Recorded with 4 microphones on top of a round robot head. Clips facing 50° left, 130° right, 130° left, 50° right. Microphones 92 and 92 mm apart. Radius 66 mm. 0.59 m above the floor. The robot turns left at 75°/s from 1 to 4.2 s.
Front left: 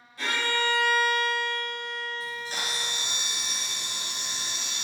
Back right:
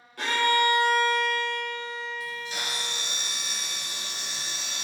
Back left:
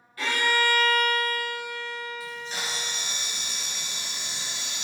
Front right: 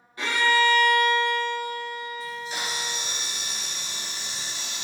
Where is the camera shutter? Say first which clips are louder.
Even, front right 2 dB; 50° left, 1.0 m; by 4.8 s 100° right, 1.0 m.